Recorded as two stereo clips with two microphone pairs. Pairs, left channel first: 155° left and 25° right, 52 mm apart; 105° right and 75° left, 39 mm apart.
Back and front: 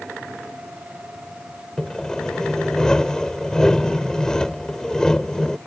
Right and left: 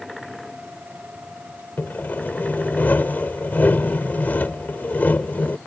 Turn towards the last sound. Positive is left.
turn(degrees=-130)